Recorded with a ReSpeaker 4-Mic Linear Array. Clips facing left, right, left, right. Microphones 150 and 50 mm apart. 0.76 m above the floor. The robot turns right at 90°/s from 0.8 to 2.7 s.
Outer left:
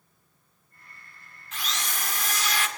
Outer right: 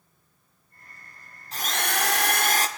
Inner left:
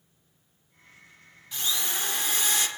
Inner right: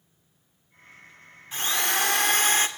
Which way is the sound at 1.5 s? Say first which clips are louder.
Outer right 6 dB, inner right 6 dB; 140° right.